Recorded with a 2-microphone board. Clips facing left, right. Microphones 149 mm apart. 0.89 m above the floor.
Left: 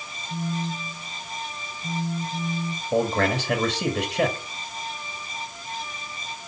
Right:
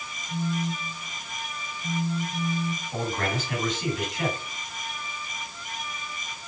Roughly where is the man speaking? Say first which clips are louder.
Left 9 dB; left.